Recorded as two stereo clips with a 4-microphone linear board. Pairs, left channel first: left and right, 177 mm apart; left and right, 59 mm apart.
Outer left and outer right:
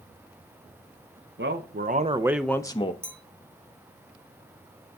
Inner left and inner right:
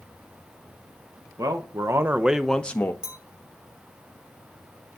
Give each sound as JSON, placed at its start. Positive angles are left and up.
{"t": 1.4, "sound": "a man speaking", "side_deg": -75, "distance_m": 0.9}
{"t": 3.0, "sound": "a clink", "side_deg": -15, "distance_m": 2.0}